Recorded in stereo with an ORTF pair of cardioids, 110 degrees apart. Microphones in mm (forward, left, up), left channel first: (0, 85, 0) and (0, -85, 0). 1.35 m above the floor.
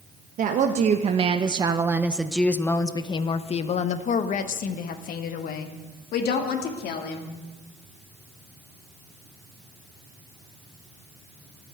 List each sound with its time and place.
0.4 s a woman speaking: 55° right, 1.2 m; by 7.3 s 70° left, 2.5 m